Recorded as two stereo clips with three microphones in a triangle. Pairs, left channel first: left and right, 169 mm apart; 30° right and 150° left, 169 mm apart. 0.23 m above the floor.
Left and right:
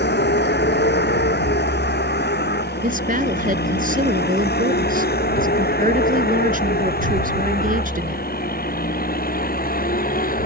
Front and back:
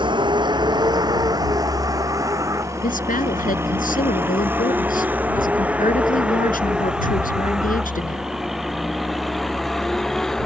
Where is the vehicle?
90° left; by 10.5 s 55° left.